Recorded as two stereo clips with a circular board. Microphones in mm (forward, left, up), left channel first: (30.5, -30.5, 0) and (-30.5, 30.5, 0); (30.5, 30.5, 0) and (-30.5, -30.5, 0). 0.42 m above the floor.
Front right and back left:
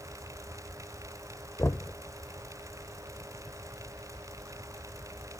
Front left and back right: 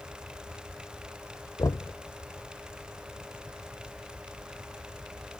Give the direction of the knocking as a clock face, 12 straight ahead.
12 o'clock.